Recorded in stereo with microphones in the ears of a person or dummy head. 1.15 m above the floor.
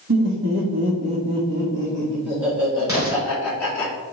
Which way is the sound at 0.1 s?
55° right (ahead or behind).